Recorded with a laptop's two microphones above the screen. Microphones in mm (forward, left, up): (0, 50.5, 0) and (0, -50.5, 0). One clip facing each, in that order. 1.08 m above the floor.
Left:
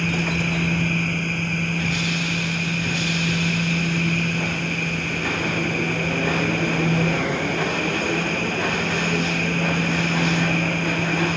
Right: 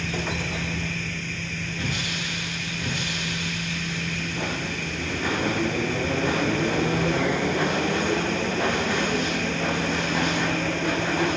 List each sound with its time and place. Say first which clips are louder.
0.0 s a machine running: left 5 dB; 50° left (ahead or behind)